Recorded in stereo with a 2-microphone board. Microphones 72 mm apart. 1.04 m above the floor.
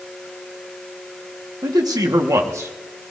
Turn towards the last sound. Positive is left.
turn(degrees=-40)  # may be behind; listen again after turning